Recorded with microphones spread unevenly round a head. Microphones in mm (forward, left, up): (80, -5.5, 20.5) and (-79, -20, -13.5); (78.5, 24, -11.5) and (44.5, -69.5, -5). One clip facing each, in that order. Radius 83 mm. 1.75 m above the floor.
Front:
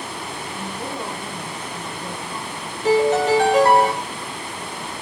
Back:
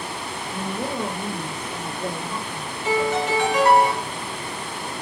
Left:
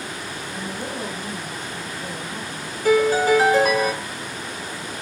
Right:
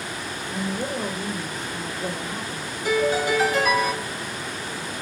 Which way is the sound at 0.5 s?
130° right.